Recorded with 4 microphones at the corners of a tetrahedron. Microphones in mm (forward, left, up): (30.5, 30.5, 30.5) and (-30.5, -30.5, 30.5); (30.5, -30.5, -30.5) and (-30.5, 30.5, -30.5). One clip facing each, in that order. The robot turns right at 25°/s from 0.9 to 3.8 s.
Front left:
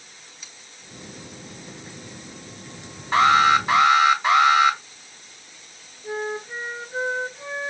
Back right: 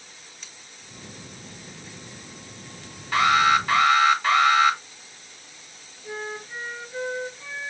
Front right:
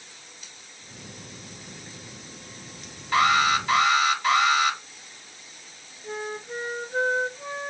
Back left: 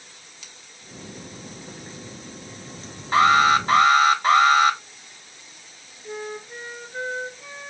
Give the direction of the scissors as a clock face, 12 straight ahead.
8 o'clock.